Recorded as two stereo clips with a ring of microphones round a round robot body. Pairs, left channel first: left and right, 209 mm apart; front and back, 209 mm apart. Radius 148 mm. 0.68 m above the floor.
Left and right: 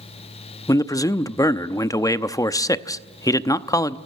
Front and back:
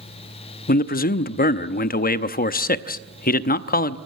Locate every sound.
0.7 s a man speaking: 20° left, 0.8 m